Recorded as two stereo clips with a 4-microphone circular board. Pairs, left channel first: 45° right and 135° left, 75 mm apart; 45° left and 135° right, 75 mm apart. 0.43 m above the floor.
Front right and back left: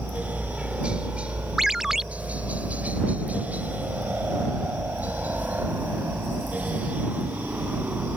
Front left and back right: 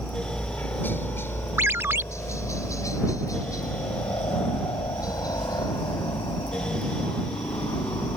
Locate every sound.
0.0 s a helicopter: 75° left; by 8.2 s 70° left
1.6 s a ringtone: 145° right